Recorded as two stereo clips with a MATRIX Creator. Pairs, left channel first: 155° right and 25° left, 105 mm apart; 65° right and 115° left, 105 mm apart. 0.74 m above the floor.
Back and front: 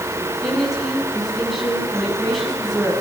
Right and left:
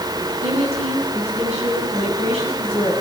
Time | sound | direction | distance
0.4 | a woman speaking | 110° left | 7.5 m